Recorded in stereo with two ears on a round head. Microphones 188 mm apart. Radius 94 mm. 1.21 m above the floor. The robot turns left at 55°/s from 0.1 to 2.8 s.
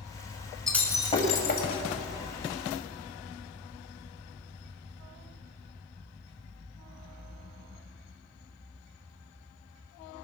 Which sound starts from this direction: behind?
Breaking glass, at 0.7 s.